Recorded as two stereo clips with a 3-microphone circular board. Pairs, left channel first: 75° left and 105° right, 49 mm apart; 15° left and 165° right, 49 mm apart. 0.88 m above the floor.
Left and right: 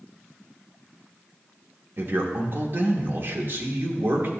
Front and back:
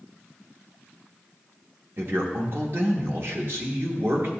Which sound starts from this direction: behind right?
A man speaking, at 2.0 s.